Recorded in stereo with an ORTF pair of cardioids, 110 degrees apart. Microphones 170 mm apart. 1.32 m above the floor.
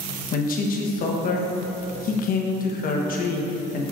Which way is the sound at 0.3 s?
55° left.